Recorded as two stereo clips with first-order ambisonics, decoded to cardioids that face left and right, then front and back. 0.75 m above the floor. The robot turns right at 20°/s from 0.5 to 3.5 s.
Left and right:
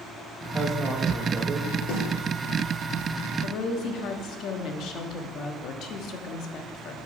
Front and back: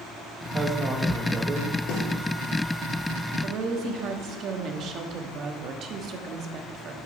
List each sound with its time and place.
0.5 s a woman speaking: 155° right, 0.9 m; by 1.8 s 135° right, 0.9 m
1.9 s a snare drum: 40° left, 3 m
3.4 s a woman speaking: 130° left, 0.9 m